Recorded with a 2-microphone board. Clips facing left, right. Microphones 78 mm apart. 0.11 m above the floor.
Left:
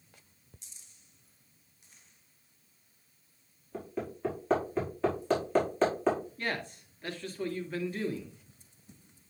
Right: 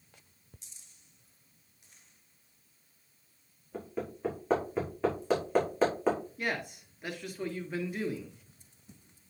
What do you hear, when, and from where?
3.7 s hammering: 5° right (ahead or behind), 5 m
6.4 s a man speaking: 15° right (ahead or behind), 1.6 m